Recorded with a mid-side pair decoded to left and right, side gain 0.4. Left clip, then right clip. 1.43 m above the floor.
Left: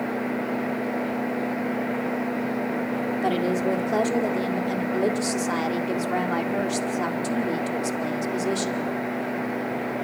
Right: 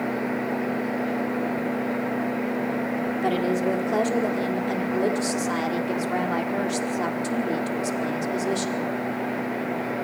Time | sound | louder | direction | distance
3.2 | a woman speaking | even | 10° left | 4.5 m